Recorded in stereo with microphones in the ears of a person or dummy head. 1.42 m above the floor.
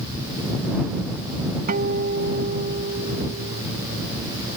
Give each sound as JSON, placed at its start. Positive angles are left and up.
{"t": 1.7, "sound": "a guitar", "side_deg": -45}